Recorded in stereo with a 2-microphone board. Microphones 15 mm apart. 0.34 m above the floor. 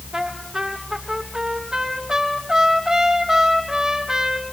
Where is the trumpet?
55° right (ahead or behind), 4 m.